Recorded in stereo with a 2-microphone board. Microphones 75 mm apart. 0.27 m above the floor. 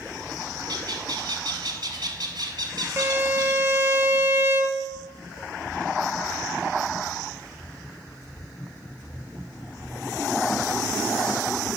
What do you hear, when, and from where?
0.7 s a bird: 70° right (ahead or behind), 1.0 m
3.0 s a violin: 30° right (ahead or behind), 0.5 m